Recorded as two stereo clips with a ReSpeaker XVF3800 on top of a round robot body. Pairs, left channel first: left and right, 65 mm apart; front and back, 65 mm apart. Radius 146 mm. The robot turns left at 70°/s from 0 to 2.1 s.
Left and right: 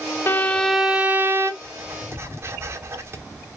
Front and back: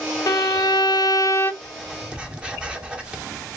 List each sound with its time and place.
0.3 s a violin: 40° left, 0.8 m; by 1.5 s 50° right, 0.8 m
1.6 s writing: 75° right, 1.3 m; by 3.6 s 110° right, 1.3 m